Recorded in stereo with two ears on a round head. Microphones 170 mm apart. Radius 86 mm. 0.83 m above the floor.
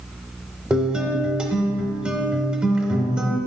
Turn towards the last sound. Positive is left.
turn(degrees=-5)  # may be behind; listen again after turning